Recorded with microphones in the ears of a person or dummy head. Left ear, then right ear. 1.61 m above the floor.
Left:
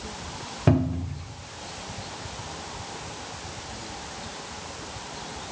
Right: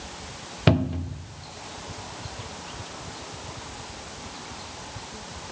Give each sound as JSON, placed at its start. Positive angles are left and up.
{"t": 0.7, "sound": "a cupboard door", "side_deg": -40, "distance_m": 0.5}